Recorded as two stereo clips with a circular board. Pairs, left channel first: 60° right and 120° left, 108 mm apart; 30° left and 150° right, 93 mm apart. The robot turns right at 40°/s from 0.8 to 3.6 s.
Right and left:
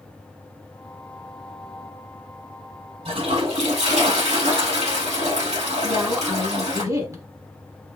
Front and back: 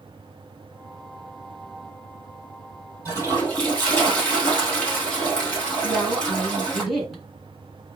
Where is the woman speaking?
120° left, 1.8 m.